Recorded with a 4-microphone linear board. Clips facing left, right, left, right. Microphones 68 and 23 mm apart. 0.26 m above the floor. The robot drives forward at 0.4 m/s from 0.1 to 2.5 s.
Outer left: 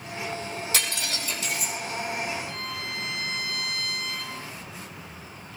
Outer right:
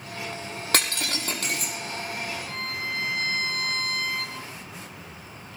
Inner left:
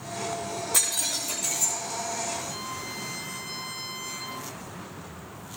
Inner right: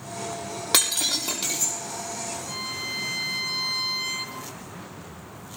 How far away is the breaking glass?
About 5.5 m.